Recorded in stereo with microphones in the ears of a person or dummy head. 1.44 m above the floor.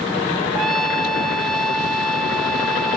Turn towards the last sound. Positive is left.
turn(degrees=5)  # may be behind; listen again after turning